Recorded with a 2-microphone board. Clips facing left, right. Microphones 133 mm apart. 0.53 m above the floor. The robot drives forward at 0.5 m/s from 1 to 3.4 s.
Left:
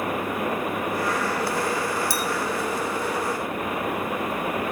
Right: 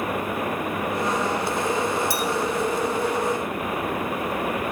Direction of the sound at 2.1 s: 50° right (ahead or behind).